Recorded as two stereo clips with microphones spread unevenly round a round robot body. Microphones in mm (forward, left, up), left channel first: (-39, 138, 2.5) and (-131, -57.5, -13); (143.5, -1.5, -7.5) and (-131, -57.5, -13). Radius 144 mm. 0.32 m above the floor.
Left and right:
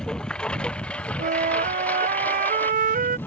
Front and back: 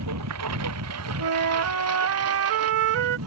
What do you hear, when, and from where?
0.0 s a lawn mower: 150° left; by 3.3 s 145° left
1.2 s a flute: 150° right